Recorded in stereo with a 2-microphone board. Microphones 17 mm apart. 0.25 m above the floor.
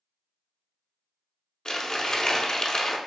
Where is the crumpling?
45° left (ahead or behind), 0.6 m.